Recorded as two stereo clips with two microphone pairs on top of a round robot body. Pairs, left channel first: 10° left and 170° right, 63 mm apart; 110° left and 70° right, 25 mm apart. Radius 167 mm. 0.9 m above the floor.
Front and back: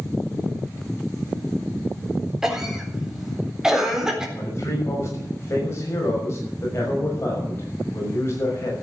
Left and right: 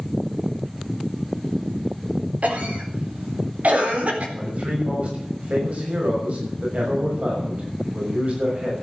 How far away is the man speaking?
About 6 m.